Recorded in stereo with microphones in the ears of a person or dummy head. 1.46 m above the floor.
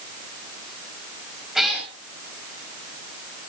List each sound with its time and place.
1.6 s a cat meowing: centre (ahead or behind), 4 m